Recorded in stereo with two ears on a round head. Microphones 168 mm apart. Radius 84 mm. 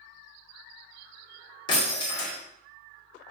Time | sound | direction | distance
1.7 | breaking glass | 25° left (ahead or behind) | 2 m